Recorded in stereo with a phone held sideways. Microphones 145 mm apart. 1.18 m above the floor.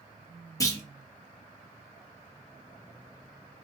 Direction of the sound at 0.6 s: 25° left (ahead or behind).